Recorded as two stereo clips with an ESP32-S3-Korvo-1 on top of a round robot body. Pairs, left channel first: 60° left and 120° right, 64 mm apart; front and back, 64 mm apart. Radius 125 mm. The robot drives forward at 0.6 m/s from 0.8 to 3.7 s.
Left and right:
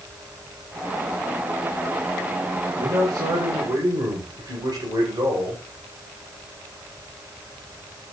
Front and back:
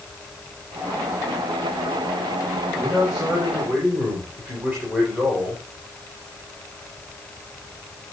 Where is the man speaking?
100° right, 4.5 m; by 5.6 s 105° right, 4.5 m.